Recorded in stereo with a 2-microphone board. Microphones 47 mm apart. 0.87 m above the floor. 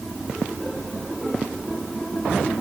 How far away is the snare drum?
I don't hear a snare drum.